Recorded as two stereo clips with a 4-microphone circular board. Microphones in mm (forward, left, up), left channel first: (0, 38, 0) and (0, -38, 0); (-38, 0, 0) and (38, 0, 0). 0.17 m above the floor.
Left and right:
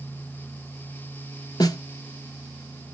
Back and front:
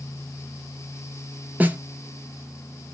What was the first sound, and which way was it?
A snare drum, 65° left.